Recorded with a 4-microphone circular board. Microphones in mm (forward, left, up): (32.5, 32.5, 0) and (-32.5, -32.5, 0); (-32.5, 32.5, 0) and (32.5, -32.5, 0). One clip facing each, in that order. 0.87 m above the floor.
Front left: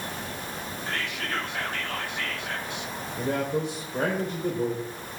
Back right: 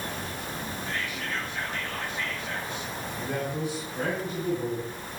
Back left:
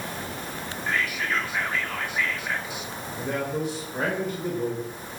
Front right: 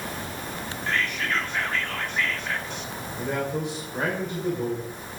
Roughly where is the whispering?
Ahead left.